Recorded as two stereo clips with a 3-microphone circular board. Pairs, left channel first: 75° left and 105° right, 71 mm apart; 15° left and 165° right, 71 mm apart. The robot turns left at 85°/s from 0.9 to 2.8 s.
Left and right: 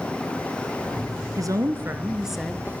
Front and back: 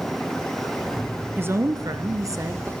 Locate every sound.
1.4 s a woman speaking: 110° right, 1.8 m; by 2.7 s 135° left, 1.8 m